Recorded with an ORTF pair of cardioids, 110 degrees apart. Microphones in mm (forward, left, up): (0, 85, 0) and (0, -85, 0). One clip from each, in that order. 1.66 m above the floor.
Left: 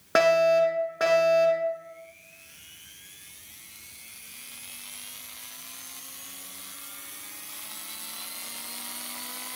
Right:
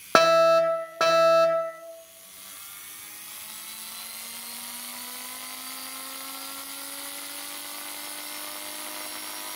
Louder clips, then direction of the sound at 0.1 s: Right 2 dB; 45° right.